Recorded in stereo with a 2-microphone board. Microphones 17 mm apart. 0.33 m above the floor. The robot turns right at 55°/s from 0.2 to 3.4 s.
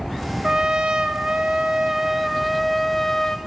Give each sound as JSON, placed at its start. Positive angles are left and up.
{"t": 0.4, "sound": "a trumpet", "azimuth_deg": -120, "distance_m": 0.8}